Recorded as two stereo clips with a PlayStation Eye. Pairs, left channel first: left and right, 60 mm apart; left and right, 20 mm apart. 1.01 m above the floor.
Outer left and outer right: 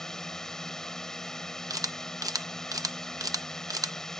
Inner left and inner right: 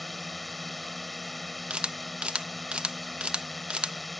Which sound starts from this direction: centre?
A drone, at 0.0 s.